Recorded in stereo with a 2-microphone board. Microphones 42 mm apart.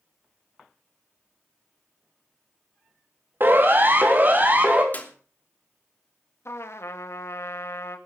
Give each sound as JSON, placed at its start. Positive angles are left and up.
{"t": 3.4, "sound": "a siren", "side_deg": -55, "distance_m": 3.0}
{"t": 4.9, "sound": "a clap", "side_deg": 40, "distance_m": 3.0}
{"t": 6.5, "sound": "a trumpet", "side_deg": 75, "distance_m": 1.9}